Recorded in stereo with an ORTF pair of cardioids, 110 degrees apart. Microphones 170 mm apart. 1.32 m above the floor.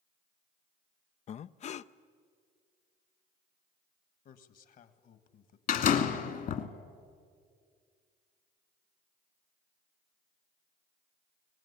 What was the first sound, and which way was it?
Breathing, 40° left.